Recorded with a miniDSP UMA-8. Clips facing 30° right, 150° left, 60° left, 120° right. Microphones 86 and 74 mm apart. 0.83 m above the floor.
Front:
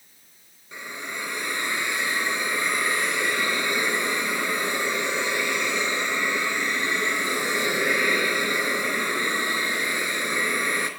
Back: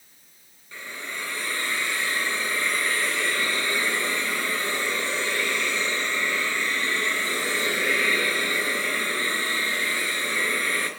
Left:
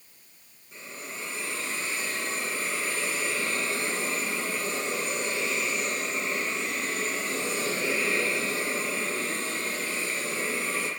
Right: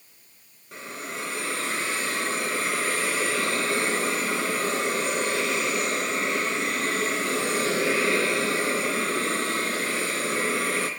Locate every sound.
0.7 s a hiss: 100° right, 3.5 m